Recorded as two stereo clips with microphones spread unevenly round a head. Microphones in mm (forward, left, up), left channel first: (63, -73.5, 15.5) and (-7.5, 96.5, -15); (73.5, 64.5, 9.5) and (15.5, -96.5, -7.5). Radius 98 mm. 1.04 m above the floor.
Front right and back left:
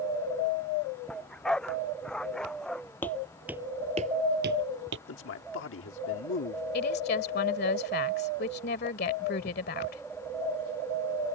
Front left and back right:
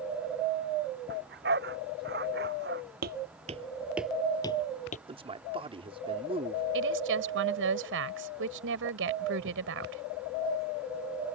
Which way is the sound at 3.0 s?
140° right.